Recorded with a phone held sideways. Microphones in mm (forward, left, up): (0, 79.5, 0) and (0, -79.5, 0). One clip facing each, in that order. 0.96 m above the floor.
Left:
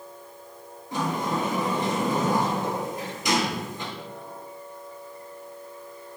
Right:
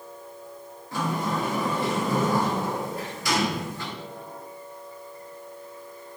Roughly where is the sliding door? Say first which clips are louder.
Left 1 dB; centre.